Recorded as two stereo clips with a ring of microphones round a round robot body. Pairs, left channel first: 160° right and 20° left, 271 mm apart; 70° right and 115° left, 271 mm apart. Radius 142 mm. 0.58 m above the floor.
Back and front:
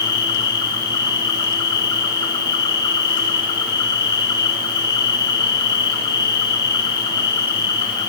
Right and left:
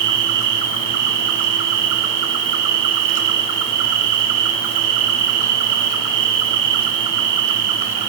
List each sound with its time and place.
0.0 s an insect: 125° left, 1.1 m